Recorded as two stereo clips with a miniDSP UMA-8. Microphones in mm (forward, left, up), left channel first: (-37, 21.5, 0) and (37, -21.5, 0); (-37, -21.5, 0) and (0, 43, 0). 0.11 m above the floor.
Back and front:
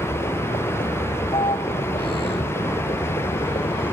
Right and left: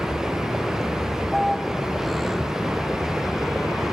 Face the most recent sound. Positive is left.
turn(degrees=150)